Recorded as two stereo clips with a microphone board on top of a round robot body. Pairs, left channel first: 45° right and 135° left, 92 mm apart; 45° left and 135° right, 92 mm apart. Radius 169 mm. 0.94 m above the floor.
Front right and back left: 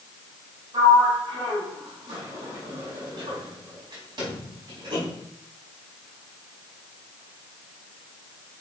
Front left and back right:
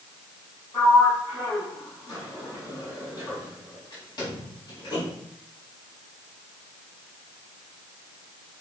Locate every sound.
0.7 s a sliding door: 90° left, 4 m